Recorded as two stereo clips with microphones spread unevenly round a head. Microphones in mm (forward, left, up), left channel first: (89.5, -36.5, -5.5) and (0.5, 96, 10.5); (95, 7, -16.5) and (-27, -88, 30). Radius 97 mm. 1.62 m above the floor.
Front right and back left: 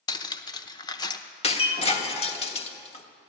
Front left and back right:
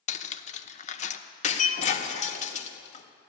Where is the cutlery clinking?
Straight ahead, 0.8 m.